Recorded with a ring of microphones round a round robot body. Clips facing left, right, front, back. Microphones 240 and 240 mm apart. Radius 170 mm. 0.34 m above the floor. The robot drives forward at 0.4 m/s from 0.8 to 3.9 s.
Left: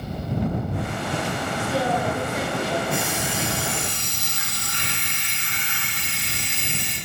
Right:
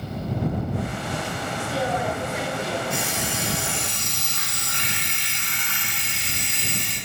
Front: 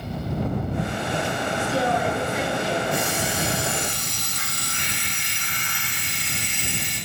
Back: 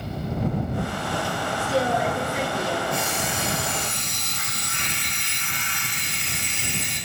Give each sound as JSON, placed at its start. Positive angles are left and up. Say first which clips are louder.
{"t": 1.6, "sound": "a woman speaking", "louder": "left 2 dB, back 1 dB", "azimuth_deg": 130, "distance_m": 3.5}
{"t": 2.9, "sound": "an alarm clock", "louder": "left 2 dB, front 2 dB", "azimuth_deg": -70, "distance_m": 5.5}